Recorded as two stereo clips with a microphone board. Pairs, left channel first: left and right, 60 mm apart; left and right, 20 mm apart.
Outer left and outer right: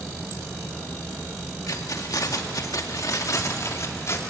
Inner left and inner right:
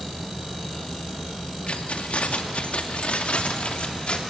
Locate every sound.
1.7 s keys jangling: 70° left (ahead or behind), 1.9 m; by 4.2 s 50° left (ahead or behind), 2.5 m